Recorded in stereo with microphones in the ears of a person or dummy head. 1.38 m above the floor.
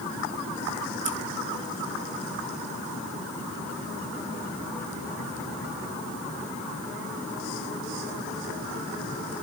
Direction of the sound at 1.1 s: 55° right (ahead or behind).